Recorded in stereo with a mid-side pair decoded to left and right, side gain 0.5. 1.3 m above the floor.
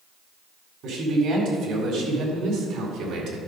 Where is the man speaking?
70° right, 4 m; by 3.4 s 75° right, 2.5 m.